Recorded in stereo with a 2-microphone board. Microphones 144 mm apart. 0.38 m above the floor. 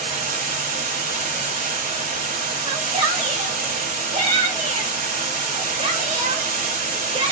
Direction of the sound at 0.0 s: 65° right (ahead or behind).